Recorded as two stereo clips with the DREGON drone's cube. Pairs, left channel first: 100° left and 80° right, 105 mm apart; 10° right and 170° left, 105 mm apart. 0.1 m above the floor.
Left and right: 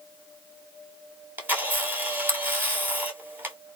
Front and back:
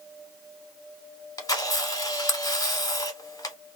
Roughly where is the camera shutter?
Ahead.